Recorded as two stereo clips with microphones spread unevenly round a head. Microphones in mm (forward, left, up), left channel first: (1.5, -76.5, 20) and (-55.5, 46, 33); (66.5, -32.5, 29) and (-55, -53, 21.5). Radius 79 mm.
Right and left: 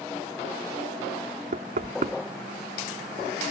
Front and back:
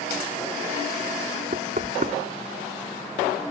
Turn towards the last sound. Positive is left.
turn(degrees=145)